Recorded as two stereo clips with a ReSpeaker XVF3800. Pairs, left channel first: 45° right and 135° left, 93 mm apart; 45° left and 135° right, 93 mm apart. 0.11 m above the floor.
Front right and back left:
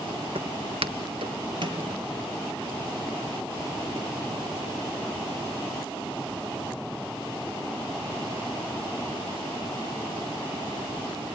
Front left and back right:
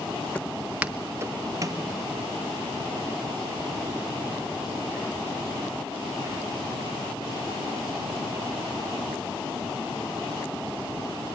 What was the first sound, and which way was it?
Footsteps, 120° left.